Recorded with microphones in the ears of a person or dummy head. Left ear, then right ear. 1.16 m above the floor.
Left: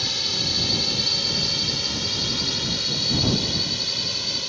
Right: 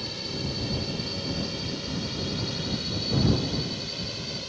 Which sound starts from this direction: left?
A drone, at 0.0 s.